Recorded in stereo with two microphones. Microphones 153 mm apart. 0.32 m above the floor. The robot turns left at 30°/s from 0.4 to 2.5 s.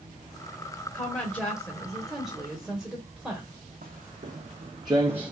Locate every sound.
0.9 s a woman speaking: 10° left (ahead or behind), 1.0 m; by 3.5 s 5° right (ahead or behind), 1.0 m
3.8 s footsteps: 75° right (ahead or behind), 0.9 m; by 5.3 s 5° right (ahead or behind), 0.8 m